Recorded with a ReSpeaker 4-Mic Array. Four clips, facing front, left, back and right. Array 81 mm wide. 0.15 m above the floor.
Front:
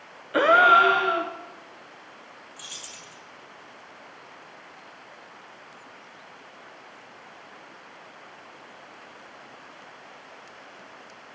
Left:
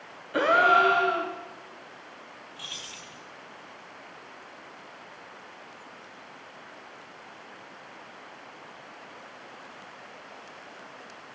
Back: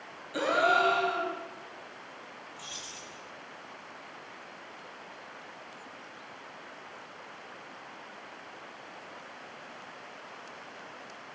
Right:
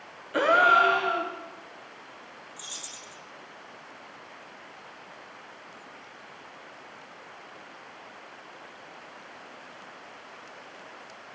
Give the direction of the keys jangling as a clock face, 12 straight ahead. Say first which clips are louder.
Left 1 dB, even; 9 o'clock.